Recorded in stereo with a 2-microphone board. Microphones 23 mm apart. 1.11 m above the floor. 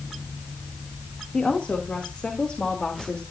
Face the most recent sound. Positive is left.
turn(degrees=50)  # may be behind; listen again after turning